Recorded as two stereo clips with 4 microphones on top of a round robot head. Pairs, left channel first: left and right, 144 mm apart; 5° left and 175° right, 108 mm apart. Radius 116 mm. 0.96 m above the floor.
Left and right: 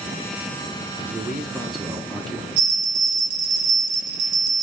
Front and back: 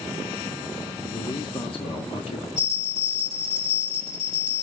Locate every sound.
1.1 s a man speaking: 10° right, 0.8 m; by 2.5 s 5° left, 1.5 m
2.6 s a bell: 40° right, 1.7 m